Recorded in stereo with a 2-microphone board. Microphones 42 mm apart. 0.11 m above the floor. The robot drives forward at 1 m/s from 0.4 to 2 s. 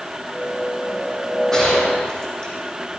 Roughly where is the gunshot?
Centre.